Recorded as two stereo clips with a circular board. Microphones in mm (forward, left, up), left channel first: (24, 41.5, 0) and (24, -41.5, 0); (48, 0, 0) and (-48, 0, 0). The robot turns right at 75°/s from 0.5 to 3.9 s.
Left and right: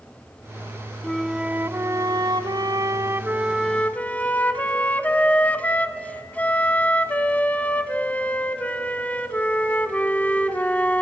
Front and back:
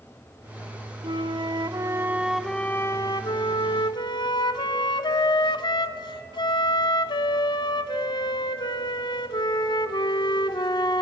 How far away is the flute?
About 0.8 m.